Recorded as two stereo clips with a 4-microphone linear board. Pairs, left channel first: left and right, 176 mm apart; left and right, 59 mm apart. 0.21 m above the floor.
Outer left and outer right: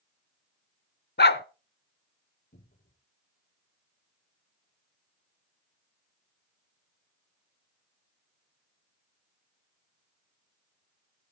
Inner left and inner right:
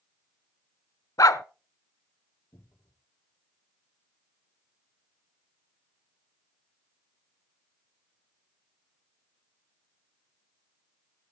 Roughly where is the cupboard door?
Left.